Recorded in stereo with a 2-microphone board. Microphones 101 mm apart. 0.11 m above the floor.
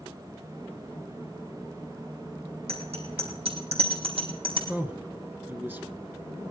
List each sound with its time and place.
2.7 s a bicycle bell: 75° right (ahead or behind), 4 m; by 4.6 s 65° right (ahead or behind), 3.5 m
4.7 s a man speaking: 20° right (ahead or behind), 1.1 m